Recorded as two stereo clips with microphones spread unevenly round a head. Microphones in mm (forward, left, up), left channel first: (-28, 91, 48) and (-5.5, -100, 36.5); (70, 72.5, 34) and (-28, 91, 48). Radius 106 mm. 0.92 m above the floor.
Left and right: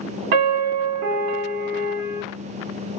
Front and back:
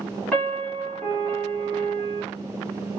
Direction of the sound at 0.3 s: 90° right.